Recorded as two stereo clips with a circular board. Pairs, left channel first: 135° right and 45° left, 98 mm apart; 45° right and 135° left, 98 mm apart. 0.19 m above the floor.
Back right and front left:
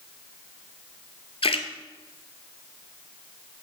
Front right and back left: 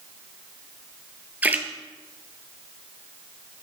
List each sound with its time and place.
1.4 s a splash: 150° right, 0.7 m